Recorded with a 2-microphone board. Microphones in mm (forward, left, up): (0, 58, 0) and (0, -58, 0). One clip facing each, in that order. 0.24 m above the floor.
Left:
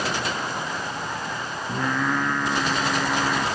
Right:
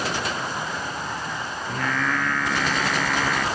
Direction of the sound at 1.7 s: 15° left (ahead or behind).